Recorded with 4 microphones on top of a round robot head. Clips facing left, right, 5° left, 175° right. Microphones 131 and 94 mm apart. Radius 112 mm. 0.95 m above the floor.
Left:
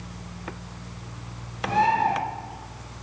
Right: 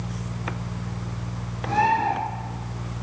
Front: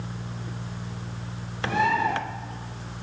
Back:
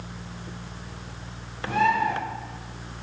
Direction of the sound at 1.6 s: 20° left.